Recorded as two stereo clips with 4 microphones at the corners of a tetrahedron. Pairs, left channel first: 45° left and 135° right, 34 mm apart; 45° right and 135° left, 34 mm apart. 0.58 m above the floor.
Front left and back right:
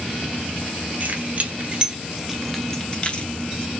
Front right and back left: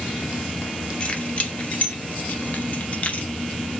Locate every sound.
1.0 s keys jangling: 95° right, 1.1 m; by 3.3 s straight ahead, 0.8 m